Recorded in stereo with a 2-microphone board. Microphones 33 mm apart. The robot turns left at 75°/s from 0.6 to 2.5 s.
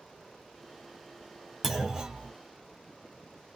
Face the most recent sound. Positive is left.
turn(degrees=-60)